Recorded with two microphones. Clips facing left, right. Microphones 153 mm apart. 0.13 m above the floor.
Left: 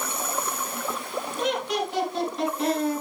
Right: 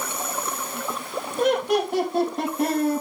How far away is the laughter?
About 4 m.